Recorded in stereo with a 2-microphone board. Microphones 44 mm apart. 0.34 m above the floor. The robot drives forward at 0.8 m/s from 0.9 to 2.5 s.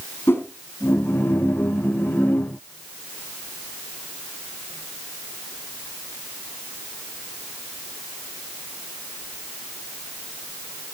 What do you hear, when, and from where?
0.3 s a whoosh: 60° left (ahead or behind), 3.5 m